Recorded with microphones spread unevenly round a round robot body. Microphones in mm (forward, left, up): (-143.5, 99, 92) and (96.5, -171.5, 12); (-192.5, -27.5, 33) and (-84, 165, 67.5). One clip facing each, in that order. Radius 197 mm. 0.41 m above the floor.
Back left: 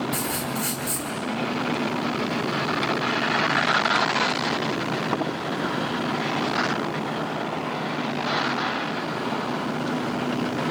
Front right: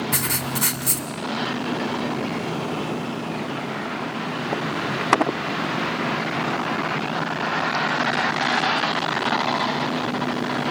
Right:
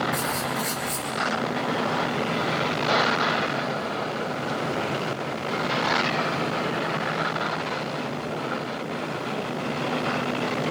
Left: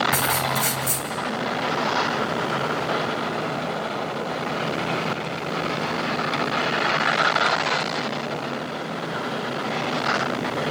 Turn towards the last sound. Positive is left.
turn(degrees=-10)